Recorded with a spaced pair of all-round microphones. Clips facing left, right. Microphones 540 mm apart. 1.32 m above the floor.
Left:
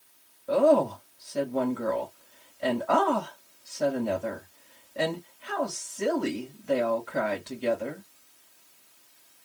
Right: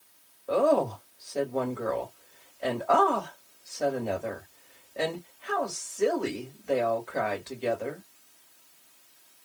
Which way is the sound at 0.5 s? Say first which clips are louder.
Left 2 dB; 30° left (ahead or behind).